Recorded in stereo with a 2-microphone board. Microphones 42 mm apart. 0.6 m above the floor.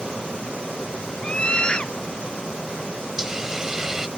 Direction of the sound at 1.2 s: 25° left (ahead or behind).